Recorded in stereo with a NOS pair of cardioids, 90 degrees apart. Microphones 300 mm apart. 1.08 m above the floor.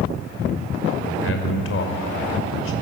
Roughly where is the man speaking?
Ahead left.